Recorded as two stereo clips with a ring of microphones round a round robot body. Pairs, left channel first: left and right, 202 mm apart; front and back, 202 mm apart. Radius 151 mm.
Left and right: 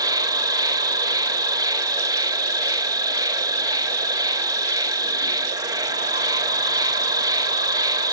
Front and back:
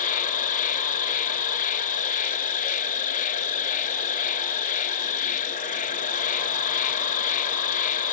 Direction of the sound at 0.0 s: 25° right.